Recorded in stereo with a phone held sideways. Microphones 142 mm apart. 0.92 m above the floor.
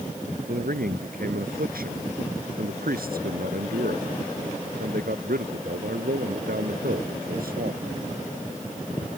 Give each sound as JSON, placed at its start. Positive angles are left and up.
{"t": 0.5, "sound": "a man speaking", "side_deg": -85}